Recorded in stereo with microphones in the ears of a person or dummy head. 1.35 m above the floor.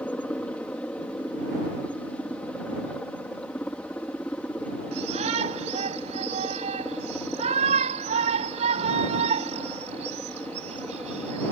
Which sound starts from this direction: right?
A shout, at 4.9 s.